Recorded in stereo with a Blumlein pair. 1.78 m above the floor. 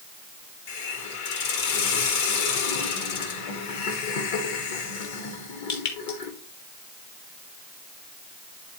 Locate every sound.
0.7 s a hiss: 50° left, 1.4 m